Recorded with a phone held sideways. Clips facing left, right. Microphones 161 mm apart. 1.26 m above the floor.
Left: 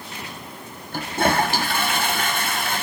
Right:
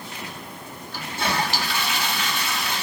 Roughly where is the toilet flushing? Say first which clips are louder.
Left 6 dB; left.